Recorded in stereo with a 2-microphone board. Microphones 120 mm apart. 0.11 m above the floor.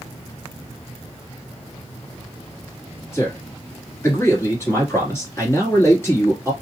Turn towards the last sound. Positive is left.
turn(degrees=20)  # may be behind; listen again after turning